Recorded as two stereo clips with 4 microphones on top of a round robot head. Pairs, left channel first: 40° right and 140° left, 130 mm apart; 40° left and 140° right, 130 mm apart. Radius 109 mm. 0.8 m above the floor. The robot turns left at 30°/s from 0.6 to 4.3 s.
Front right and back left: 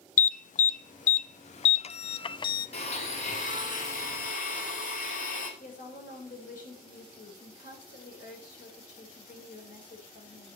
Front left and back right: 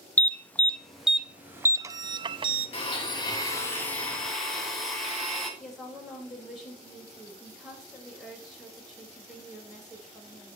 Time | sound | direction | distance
0.2 | an alarm | 35° right | 0.6 m
2.7 | a blender | straight ahead | 2.5 m
5.6 | a woman speaking | 50° right | 4.5 m